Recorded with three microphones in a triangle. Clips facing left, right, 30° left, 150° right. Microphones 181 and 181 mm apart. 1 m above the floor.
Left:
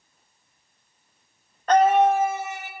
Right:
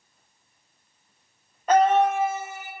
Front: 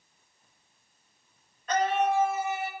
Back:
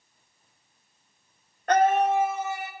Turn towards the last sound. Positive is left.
turn(degrees=85)